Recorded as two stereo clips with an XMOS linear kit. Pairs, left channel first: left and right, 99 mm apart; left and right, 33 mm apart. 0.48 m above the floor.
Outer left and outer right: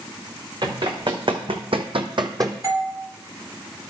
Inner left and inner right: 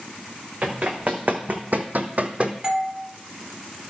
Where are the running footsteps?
50° right (ahead or behind), 2.5 m; by 2.5 s 35° right (ahead or behind), 1.2 m.